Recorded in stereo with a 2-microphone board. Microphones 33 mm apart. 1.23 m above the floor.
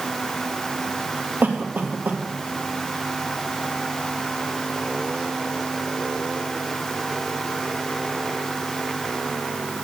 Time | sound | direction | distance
1.4 | a cough | 75° right (ahead or behind) | 2 m